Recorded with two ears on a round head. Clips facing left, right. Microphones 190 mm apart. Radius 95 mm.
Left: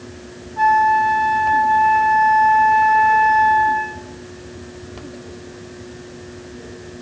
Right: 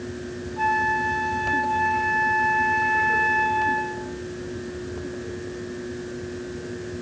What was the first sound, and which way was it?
A flute, 50° left (ahead or behind).